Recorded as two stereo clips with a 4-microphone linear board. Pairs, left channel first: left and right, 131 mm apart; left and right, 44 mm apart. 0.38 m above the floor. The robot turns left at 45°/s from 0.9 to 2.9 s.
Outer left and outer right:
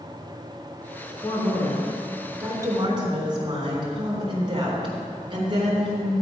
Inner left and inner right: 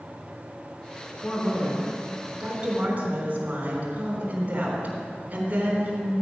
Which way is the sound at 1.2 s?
35° left.